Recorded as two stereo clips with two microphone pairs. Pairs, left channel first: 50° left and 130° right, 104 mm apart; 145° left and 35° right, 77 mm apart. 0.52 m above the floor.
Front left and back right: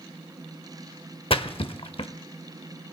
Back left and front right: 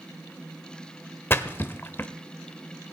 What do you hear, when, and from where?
1.3 s a splash: 85° left, 0.6 m